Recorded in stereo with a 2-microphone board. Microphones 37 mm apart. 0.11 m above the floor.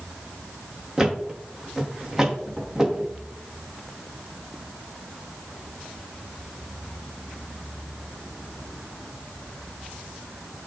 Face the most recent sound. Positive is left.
turn(degrees=-10)  # may be behind; listen again after turning